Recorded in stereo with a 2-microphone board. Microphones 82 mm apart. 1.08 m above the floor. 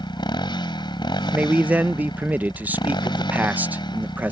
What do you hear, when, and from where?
0.0 s a motorcycle: 70° left (ahead or behind)
1.3 s a man speaking: 20° right (ahead or behind)